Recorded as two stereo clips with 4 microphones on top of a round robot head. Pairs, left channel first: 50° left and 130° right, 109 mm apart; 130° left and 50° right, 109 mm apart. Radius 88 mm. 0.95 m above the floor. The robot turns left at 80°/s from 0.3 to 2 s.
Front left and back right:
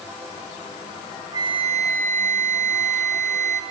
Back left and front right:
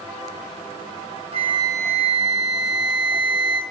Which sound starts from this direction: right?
A flute, at 1.3 s.